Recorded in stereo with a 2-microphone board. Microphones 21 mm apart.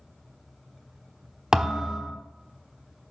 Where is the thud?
40° right (ahead or behind), 1.0 m.